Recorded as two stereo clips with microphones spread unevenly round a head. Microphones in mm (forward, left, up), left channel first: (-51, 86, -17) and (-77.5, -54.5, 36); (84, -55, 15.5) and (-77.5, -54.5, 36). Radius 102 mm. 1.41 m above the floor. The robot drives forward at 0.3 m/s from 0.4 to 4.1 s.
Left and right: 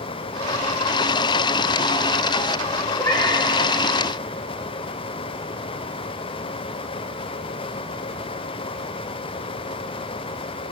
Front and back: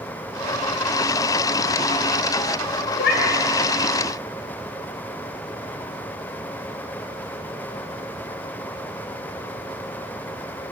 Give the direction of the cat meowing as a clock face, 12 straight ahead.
12 o'clock.